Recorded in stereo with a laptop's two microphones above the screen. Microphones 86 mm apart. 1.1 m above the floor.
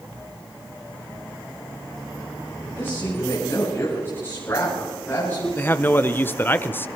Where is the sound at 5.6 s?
25° left (ahead or behind), 0.7 m.